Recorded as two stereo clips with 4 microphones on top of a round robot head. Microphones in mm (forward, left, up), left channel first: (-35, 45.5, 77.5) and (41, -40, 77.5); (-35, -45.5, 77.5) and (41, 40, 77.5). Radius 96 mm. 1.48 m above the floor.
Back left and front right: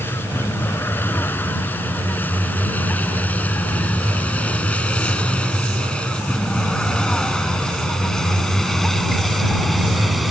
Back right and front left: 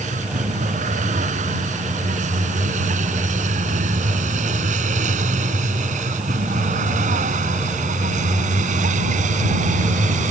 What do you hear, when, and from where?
0.0 s a vehicle: 60° left; by 10.3 s 40° left